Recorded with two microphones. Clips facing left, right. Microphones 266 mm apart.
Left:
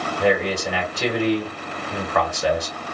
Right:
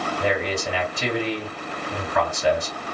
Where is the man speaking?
75° left (ahead or behind), 1.8 m.